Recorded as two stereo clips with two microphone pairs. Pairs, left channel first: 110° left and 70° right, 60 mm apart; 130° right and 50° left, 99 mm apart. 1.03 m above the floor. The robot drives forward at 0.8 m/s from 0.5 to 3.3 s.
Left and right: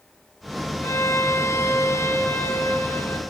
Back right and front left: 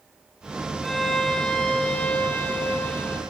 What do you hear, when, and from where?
0.8 s a violin: 140° left, 2.5 m; by 3.2 s 160° left, 4 m